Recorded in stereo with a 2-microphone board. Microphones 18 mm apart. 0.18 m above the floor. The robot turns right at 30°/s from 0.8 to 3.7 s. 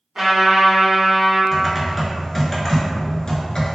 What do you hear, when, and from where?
0.1 s a trumpet: 35° right (ahead or behind), 1.7 m; by 1.4 s 30° right (ahead or behind), 1.7 m
1.5 s typing on a keyboard: 15° right, 0.5 m; by 3.8 s 50° left, 0.5 m